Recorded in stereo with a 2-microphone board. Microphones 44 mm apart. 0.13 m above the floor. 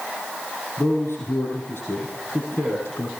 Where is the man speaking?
75° left (ahead or behind), 6 m.